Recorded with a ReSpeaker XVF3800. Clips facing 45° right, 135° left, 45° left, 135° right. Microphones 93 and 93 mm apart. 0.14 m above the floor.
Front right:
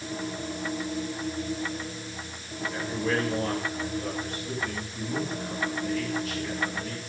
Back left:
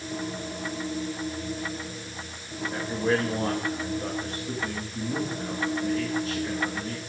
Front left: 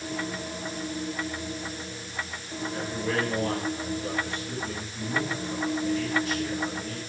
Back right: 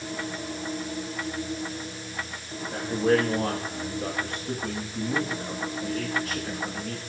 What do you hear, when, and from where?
2.7 s a man speaking: 170° right, 9 m